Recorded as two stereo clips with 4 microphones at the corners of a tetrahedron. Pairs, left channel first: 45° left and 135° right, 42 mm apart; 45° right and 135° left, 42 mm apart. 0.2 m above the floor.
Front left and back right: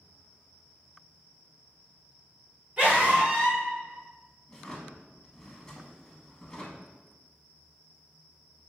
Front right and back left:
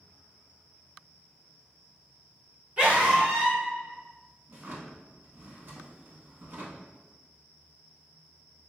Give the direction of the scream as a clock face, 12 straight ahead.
6 o'clock.